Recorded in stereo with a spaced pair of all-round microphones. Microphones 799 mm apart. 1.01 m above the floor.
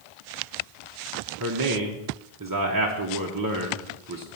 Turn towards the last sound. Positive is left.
turn(degrees=-25)  # may be behind; listen again after turning